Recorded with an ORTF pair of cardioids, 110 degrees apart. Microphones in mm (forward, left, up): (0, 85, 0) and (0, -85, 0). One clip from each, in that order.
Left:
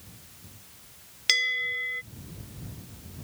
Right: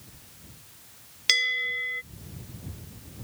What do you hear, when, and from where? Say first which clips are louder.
1.3 s a bell: right 1 dB; 5° right